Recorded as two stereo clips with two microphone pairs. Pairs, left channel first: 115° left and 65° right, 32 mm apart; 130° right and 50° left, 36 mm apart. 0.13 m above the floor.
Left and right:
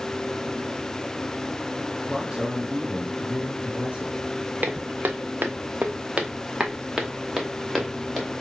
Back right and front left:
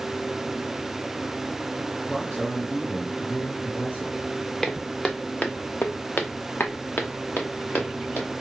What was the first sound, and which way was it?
A man speaking, 120° right.